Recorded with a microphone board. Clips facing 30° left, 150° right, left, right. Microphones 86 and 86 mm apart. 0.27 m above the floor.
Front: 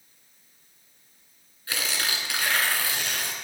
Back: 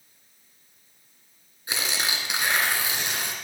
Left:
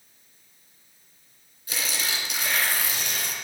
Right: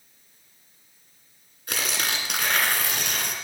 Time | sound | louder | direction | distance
1.7 | tearing paper | back 1 dB, right 2 dB | 80° right | 2 m